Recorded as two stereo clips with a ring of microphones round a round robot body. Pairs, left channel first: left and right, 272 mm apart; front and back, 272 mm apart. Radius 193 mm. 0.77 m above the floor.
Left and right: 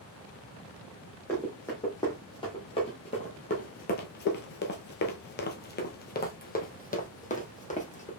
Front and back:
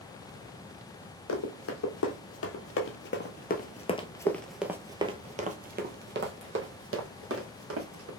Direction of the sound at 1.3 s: 5° left.